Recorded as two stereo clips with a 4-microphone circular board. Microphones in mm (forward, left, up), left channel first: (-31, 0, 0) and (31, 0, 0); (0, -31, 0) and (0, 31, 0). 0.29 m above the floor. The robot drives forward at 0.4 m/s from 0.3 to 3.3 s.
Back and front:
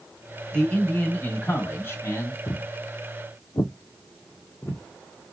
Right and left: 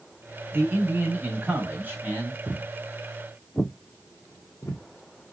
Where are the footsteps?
130° left, 0.5 m; by 5.3 s 120° right, 1.3 m.